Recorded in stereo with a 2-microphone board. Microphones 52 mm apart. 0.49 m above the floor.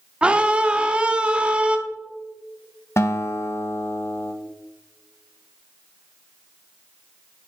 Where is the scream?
20° right (ahead or behind), 0.7 m.